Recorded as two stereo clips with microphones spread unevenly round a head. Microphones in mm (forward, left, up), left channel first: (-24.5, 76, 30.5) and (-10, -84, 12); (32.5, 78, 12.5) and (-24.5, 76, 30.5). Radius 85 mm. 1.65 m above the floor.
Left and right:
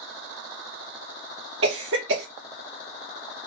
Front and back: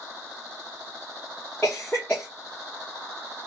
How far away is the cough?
About 0.8 m.